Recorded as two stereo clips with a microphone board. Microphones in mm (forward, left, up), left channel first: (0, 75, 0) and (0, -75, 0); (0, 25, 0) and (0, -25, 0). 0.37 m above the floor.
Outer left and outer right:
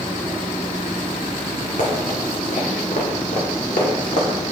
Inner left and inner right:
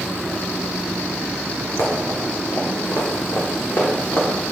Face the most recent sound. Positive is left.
turn(degrees=65)  # may be behind; listen again after turning